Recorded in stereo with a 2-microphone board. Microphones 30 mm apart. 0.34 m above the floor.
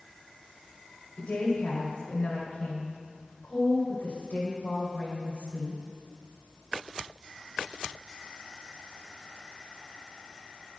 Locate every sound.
1.2 s a woman speaking: 45° left (ahead or behind), 2 m